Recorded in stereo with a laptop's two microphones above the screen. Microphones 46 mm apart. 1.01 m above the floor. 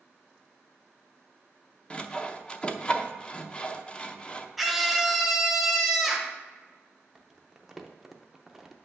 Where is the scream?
5° right (ahead or behind), 0.9 m.